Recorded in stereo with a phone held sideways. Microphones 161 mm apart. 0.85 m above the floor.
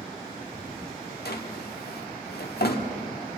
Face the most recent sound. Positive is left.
turn(degrees=85)